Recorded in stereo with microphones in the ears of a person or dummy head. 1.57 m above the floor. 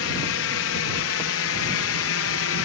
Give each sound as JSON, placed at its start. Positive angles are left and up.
{"t": 0.0, "sound": "a drone", "side_deg": 65}